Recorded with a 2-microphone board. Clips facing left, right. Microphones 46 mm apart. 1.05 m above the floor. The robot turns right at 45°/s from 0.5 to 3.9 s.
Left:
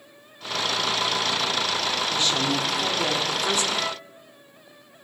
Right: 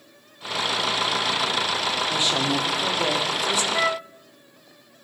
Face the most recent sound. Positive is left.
turn(degrees=-45)  # may be behind; listen again after turning